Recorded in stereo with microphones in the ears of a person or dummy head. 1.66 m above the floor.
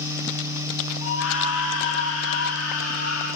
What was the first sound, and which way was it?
A scream, 75° left (ahead or behind).